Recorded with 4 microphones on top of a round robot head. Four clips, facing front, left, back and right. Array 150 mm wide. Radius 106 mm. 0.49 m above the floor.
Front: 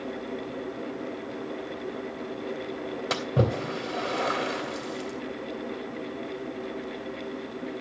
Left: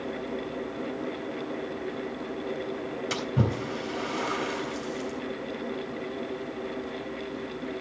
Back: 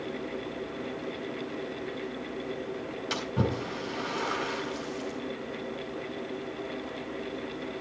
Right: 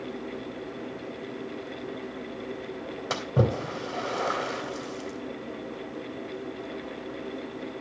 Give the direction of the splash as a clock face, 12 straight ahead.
2 o'clock.